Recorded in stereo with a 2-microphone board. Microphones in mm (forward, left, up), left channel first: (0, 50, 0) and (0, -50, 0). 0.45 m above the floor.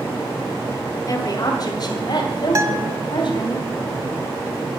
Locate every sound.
1.1 s a woman speaking: 40° left (ahead or behind), 2.0 m; by 3.5 s 55° left (ahead or behind), 3.5 m
2.5 s a guitar: 35° right (ahead or behind), 0.8 m